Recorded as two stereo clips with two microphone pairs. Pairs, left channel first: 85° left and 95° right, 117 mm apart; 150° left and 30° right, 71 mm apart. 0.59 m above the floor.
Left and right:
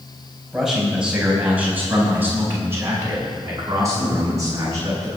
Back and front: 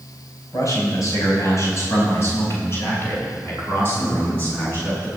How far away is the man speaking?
About 4 m.